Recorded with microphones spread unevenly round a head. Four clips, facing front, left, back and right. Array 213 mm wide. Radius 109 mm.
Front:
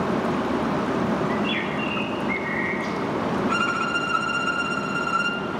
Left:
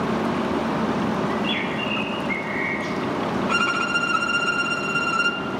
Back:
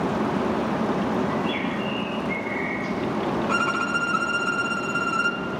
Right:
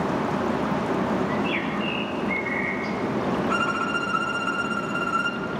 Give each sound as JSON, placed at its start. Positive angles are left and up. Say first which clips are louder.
{"t": 1.3, "sound": "a bird", "louder": "left 1 dB, even", "azimuth_deg": 0, "distance_m": 5.5}
{"t": 3.5, "sound": "a violin", "louder": "left 2 dB, even", "azimuth_deg": 165, "distance_m": 0.9}